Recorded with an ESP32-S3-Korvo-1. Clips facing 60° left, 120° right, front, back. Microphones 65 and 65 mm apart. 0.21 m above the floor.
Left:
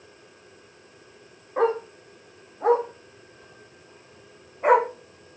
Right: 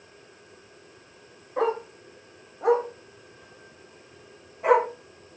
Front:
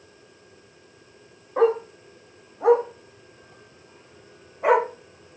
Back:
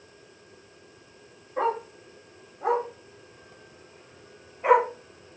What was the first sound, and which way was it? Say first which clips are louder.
A dog barking: left 3 dB, front 7 dB; straight ahead.